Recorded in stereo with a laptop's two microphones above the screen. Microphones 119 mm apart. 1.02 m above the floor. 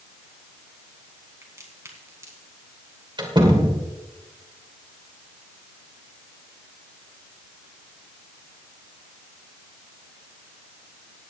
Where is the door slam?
40° right (ahead or behind), 2.5 m.